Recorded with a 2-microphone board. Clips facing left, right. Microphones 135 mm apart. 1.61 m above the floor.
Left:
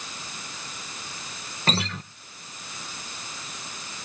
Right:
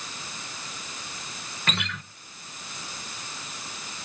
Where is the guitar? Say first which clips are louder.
Left 5 dB; 30° left (ahead or behind), 0.7 m.